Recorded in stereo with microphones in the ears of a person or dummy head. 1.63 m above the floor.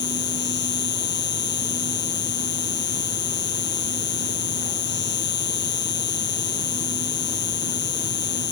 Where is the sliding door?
I don't hear a sliding door.